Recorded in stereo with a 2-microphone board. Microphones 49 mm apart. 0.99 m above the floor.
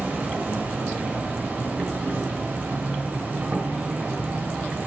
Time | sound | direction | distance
0.0 | an insect | 40° right (ahead or behind) | 1.3 m